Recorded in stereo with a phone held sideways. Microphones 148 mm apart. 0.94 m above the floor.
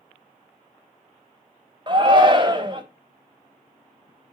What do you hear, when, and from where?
1.9 s a shout: 30° right (ahead or behind), 1.0 m